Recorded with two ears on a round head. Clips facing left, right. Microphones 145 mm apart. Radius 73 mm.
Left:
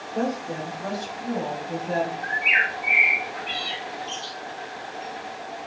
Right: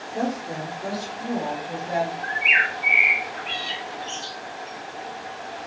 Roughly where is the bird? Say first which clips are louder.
Right 1 dB; right.